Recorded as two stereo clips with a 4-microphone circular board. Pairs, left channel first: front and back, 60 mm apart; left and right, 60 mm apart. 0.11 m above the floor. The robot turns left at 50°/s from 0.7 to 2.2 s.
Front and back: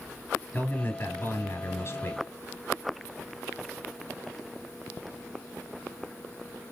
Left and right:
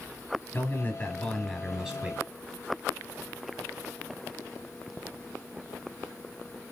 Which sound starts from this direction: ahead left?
A man speaking, at 0.5 s.